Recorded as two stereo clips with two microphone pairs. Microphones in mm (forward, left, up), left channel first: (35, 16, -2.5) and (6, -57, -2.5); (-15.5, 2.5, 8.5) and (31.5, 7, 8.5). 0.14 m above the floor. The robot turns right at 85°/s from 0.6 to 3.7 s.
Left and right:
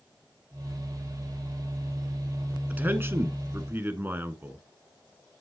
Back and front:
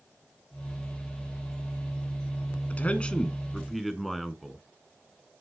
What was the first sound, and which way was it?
A man speaking, 165° right.